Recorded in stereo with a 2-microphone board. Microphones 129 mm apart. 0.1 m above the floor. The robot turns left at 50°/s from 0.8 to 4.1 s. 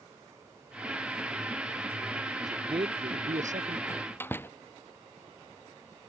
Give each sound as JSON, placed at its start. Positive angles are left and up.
{"t": 2.4, "sound": "a man speaking", "azimuth_deg": -30}
{"t": 3.9, "sound": "a door slam", "side_deg": 30}